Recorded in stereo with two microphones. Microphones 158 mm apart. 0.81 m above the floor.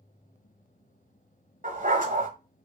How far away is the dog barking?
About 1.0 m.